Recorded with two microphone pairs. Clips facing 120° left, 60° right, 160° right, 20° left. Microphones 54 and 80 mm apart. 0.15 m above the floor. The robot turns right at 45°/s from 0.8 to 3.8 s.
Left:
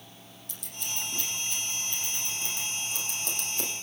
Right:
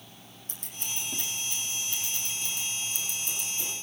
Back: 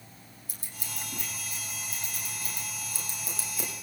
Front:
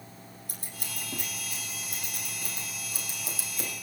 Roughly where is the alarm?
I don't hear an alarm.